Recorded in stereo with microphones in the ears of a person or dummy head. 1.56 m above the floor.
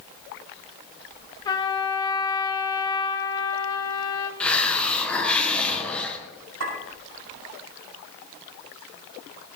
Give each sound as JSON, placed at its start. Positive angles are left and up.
{"t": 1.4, "sound": "a trumpet", "side_deg": 20, "distance_m": 1.0}
{"t": 4.4, "sound": "a hiss", "side_deg": 5, "distance_m": 1.4}
{"t": 6.6, "sound": "a clink", "side_deg": -75, "distance_m": 7.5}